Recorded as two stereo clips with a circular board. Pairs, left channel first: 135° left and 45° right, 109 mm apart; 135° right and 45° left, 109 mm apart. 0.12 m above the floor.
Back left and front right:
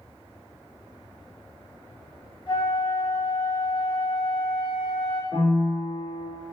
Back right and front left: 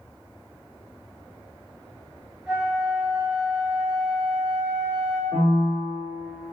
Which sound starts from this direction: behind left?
A flute, at 2.5 s.